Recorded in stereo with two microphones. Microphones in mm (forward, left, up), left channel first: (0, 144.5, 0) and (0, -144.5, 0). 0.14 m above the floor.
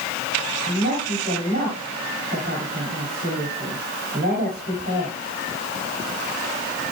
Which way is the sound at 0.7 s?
30° right (ahead or behind).